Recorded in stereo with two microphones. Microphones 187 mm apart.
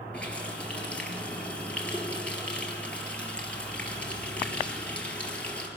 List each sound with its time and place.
0.1 s a running tap: 5° left (ahead or behind), 3.5 m